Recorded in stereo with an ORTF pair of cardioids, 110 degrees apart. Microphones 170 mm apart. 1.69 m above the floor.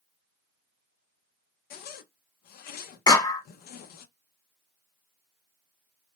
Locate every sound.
1.7 s a zipper: 65° left, 0.6 m
3.1 s a clap: 25° left, 1.4 m